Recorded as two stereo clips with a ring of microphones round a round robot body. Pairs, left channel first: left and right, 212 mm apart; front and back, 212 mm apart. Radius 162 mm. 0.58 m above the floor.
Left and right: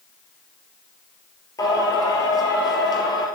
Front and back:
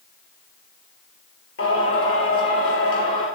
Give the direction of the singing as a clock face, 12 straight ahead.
11 o'clock.